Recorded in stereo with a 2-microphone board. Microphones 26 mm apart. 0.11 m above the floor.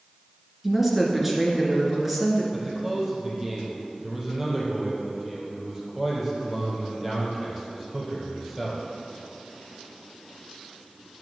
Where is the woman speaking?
10° right (ahead or behind), 1.6 m.